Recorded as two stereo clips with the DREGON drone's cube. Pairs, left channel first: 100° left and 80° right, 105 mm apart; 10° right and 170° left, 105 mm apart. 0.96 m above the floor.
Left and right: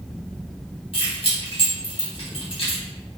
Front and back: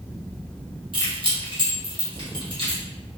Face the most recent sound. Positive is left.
turn(degrees=130)